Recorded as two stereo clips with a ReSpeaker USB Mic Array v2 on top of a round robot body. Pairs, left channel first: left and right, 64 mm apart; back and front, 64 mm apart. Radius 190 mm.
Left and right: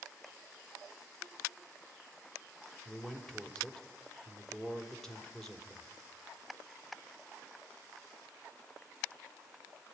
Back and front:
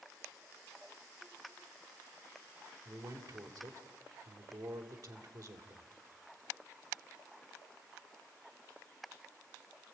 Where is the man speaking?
5° left, 3 m.